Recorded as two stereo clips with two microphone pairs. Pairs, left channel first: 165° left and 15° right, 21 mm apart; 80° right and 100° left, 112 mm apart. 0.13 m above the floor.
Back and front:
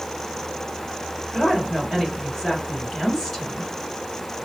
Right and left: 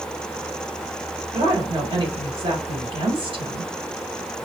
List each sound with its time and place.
1.3 s a woman speaking: 100° left, 2 m